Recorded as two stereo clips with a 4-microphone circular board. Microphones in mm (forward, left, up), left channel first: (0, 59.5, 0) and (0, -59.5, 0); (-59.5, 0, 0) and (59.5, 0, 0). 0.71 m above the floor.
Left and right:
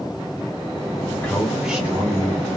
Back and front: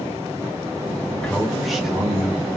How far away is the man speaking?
About 1.1 m.